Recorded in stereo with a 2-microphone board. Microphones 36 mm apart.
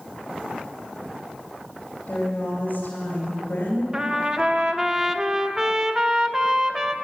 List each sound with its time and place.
2.1 s a woman speaking: 45° left (ahead or behind), 3 m
3.9 s a trumpet: 20° right (ahead or behind), 0.8 m